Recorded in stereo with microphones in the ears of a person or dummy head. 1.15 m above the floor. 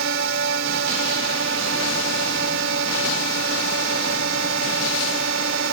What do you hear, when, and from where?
0.0 s a drone: 65° right (ahead or behind)